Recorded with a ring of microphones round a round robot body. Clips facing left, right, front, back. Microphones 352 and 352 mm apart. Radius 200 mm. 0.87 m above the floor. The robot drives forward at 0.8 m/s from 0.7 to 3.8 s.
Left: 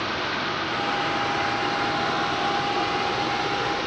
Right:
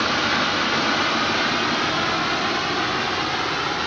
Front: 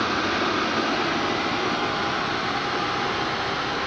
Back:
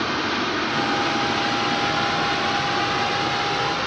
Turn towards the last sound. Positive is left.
turn(degrees=-150)